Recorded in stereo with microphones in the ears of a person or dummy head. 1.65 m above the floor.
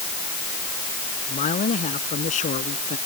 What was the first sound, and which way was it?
A man speaking, 40° left (ahead or behind).